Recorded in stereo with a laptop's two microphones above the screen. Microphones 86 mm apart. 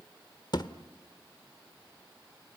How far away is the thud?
About 1.2 m.